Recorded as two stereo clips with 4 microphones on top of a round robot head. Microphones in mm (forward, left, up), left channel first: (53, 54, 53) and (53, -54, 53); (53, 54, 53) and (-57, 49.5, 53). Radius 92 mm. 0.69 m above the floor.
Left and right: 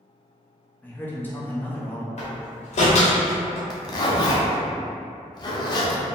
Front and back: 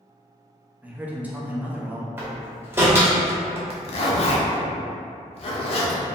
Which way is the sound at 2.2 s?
115° left.